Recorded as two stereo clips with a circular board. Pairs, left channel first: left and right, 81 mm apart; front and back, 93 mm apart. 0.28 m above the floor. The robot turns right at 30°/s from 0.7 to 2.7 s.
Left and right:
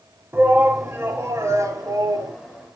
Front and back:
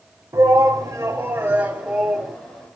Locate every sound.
0.3 s a shout: 140° right, 1.8 m; by 2.3 s 90° right, 1.8 m